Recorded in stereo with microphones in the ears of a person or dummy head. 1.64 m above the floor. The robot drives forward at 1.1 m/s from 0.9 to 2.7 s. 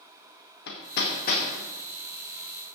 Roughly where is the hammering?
Left.